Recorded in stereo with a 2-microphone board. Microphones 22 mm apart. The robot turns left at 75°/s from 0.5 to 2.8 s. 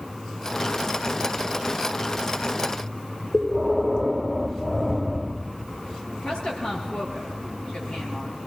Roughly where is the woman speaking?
Left.